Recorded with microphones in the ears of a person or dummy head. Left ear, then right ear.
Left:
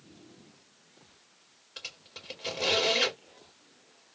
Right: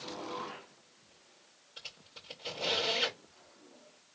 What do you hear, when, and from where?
1.8 s a squeak: 45° left (ahead or behind), 2 m